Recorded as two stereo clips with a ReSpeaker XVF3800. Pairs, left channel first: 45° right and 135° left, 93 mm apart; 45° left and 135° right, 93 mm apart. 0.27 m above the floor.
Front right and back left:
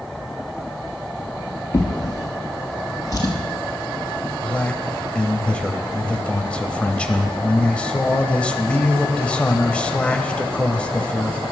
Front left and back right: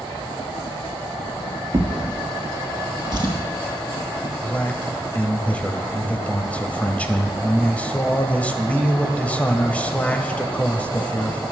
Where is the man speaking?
5° left, 0.9 m.